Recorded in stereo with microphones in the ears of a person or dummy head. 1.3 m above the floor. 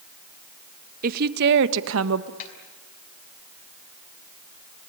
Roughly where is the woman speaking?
Right.